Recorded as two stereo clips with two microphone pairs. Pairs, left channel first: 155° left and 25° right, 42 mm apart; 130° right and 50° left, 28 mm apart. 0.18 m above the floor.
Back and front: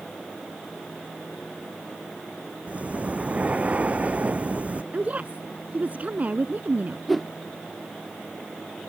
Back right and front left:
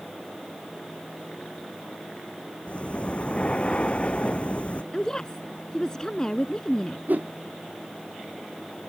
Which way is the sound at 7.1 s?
65° left.